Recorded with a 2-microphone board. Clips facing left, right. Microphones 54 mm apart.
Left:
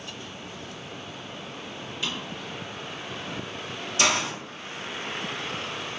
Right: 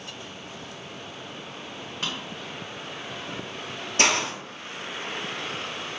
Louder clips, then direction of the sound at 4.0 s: Right 1 dB; 50° right (ahead or behind).